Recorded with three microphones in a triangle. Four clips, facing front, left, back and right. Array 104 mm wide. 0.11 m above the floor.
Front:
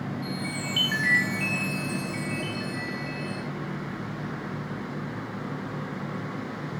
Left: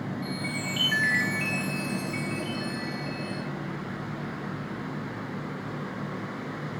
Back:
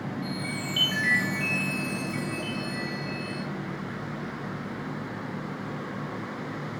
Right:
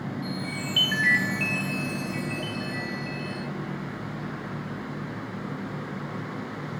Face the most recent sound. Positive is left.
turn(degrees=-55)